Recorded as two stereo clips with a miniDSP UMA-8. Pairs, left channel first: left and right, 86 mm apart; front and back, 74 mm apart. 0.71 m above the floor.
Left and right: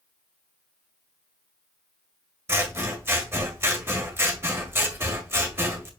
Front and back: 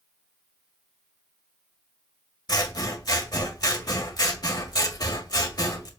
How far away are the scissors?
About 1.8 m.